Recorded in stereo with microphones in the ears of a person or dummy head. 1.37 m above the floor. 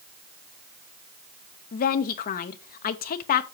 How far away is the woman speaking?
About 0.6 m.